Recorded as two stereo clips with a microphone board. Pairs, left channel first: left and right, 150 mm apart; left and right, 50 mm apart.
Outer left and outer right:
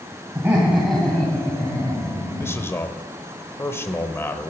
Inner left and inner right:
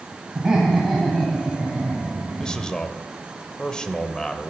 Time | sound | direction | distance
0.3 | laughter | 20° right (ahead or behind) | 2 m
2.4 | a man speaking | 15° left (ahead or behind) | 0.9 m